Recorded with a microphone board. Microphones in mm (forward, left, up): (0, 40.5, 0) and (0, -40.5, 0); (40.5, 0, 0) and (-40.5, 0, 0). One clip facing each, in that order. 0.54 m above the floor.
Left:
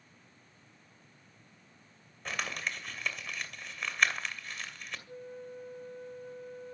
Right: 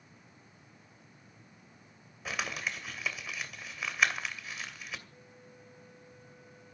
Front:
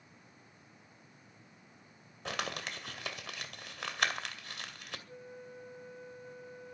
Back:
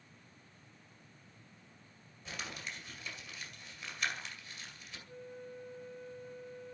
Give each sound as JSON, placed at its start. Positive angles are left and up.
{"t": 2.2, "sound": "crumpling", "azimuth_deg": -5, "distance_m": 2.0}
{"t": 5.1, "sound": "a flute", "azimuth_deg": 80, "distance_m": 2.5}